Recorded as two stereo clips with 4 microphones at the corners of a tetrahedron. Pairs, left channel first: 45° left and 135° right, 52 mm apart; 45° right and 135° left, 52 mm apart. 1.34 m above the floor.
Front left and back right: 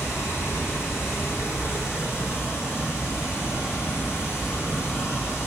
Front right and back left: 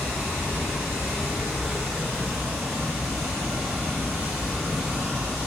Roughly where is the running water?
Ahead left.